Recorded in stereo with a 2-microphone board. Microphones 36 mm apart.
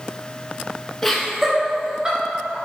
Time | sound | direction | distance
1.0 | laughter | 10° left (ahead or behind) | 1.5 m